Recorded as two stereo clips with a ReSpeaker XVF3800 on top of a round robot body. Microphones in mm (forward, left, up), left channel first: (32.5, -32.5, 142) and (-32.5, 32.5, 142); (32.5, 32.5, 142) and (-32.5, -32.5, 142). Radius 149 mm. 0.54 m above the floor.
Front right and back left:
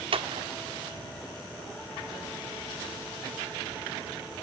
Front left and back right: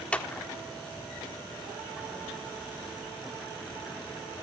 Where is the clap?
120° left, 1.8 m.